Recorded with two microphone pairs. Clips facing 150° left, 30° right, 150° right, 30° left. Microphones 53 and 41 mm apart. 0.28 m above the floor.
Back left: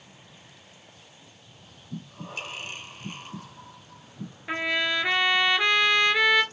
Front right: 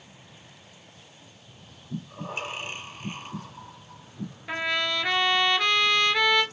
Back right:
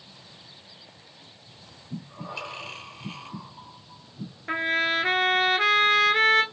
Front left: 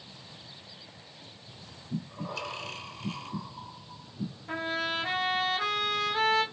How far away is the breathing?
About 2 m.